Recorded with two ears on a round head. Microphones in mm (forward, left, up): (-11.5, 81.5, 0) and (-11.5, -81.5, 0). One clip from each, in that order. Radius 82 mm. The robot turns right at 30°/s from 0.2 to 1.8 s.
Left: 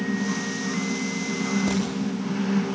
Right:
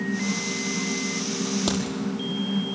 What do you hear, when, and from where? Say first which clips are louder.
1.7 s a crack: right 1 dB; 80° right, 5.5 m; by 1.8 s 85° right, 5.5 m